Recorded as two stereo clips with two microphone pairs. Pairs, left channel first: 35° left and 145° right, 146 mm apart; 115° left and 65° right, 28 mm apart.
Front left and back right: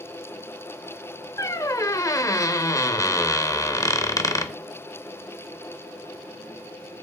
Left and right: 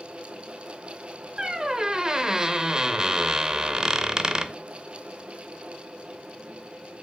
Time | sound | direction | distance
1.4 | a squeak | 15° right | 0.6 m